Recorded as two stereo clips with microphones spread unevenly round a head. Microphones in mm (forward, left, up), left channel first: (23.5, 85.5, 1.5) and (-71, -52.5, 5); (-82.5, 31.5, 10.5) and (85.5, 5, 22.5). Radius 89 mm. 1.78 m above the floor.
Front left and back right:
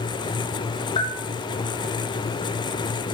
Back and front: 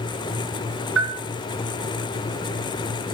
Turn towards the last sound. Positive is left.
turn(degrees=-10)